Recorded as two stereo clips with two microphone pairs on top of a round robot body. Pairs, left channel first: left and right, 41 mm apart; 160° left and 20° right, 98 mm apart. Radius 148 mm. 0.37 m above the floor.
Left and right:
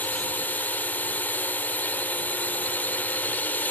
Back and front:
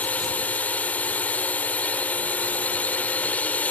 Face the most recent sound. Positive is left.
turn(degrees=85)